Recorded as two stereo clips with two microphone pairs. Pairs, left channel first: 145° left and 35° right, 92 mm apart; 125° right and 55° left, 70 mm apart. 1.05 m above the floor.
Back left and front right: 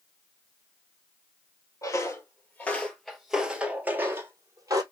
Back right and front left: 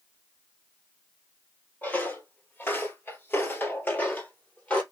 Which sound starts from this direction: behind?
Footsteps, at 1.8 s.